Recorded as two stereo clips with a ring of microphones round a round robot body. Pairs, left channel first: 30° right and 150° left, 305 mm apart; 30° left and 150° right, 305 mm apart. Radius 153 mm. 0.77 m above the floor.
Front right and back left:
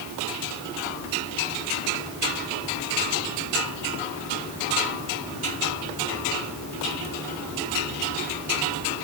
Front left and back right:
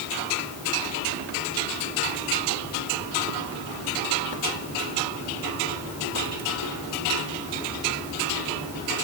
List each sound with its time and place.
Only background noise.